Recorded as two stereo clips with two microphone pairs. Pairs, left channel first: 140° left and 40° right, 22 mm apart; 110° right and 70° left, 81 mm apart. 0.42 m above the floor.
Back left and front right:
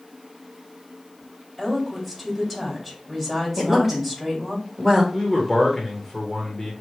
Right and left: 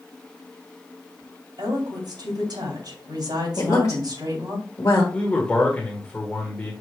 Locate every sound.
1.6 s a woman speaking: 65° left, 2.5 m
3.6 s a woman speaking: 120° right, 1.0 m
5.1 s a man speaking: 165° right, 1.2 m